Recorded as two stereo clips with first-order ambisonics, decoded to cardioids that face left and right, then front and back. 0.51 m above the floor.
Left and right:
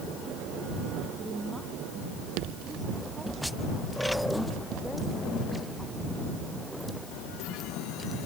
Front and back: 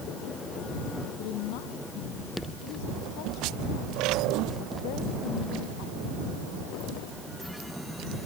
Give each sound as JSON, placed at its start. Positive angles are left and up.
{"t": 1.2, "sound": "a woman speaking", "azimuth_deg": -5}